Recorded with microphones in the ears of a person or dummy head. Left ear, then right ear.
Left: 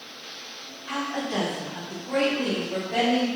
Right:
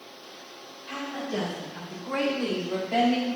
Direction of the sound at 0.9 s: 25° left (ahead or behind).